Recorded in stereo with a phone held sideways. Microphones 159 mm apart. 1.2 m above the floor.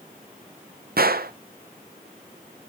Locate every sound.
1.0 s a gunshot: 75° right (ahead or behind), 0.5 m